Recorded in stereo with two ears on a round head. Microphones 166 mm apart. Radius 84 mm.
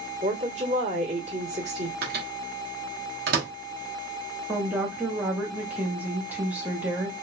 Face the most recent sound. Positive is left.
turn(degrees=-10)  # may be behind; listen again after turning